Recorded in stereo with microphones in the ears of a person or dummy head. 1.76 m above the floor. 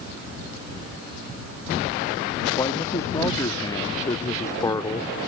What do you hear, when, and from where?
2.6 s a man speaking: 15° left (ahead or behind); by 5.1 s 20° left (ahead or behind)